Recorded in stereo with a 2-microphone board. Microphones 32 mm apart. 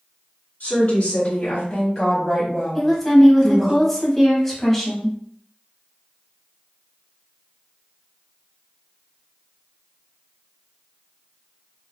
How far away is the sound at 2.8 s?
About 1.3 m.